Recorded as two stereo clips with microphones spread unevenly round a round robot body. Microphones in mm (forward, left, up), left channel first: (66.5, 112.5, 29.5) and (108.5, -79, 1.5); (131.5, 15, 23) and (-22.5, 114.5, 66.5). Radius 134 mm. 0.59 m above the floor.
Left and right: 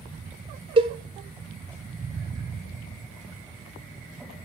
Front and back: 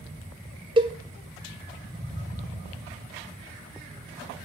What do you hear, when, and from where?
0.8 s a cowbell: 140° right, 1.0 m